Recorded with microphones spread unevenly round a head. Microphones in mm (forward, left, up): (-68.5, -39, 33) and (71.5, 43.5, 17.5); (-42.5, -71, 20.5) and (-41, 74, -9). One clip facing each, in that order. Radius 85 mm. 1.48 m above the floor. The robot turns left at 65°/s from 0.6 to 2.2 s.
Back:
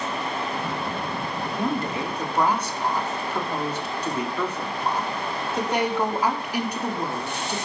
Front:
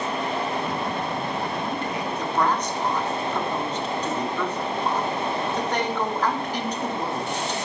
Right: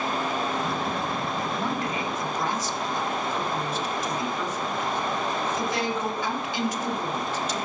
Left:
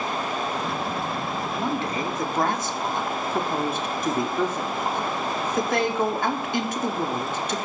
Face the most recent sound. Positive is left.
turn(degrees=130)